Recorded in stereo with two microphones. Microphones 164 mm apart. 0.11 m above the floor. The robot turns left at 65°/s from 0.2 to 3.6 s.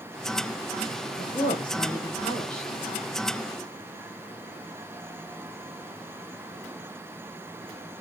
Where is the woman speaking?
30° left (ahead or behind), 1.7 m; by 2.8 s 5° right (ahead or behind), 1.7 m.